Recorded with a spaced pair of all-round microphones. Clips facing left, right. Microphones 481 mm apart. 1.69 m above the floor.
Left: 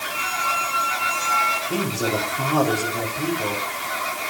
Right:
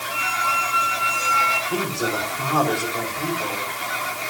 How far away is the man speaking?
About 6 m.